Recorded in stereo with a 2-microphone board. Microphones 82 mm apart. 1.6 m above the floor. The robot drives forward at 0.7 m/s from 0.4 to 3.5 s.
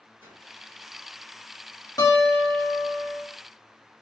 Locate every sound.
0.2 s a whoosh: 25° right (ahead or behind), 2.5 m
2.0 s a guitar: 50° left (ahead or behind), 1.7 m; by 3.2 s 60° left (ahead or behind), 1.5 m